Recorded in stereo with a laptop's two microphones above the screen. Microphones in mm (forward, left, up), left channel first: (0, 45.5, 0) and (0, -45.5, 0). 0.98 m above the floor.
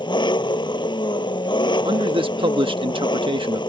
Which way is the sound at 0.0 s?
60° left (ahead or behind).